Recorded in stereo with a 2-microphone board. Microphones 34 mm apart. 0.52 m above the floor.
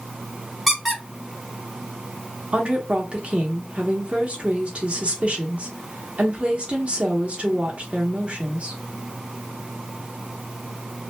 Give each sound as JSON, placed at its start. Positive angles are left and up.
{"t": 0.7, "sound": "a squeak", "side_deg": 0, "distance_m": 0.8}
{"t": 2.5, "sound": "a woman speaking", "side_deg": -30, "distance_m": 0.9}